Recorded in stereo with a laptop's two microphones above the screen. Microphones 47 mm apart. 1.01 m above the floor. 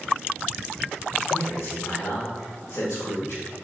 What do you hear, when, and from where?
1.3 s a man speaking: 80° left, 1.1 m